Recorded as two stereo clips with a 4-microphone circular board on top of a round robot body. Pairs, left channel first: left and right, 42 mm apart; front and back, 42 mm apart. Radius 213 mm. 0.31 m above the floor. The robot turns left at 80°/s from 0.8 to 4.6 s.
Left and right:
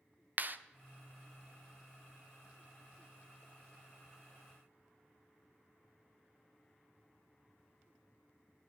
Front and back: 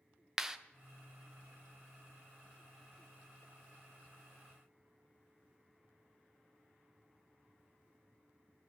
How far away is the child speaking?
No child speaking in this recording.